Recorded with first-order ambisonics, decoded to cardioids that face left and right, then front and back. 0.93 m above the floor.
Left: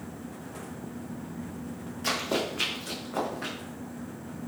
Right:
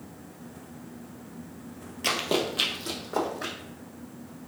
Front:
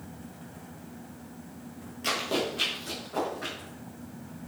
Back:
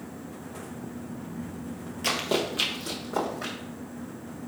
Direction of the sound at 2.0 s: 120° right.